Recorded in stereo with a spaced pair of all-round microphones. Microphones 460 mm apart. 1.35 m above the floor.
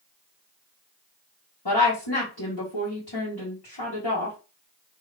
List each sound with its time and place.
1.6 s a woman speaking: 55° left (ahead or behind), 1.3 m